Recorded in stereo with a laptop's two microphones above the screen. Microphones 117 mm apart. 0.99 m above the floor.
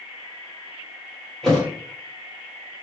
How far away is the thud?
About 1.2 m.